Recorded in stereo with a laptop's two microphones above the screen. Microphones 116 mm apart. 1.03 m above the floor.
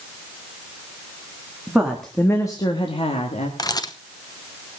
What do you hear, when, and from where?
1.7 s a woman speaking: 10° right (ahead or behind), 1.6 m; by 3.5 s 70° left (ahead or behind), 1.9 m
3.6 s a camera shutter: 35° left (ahead or behind), 0.9 m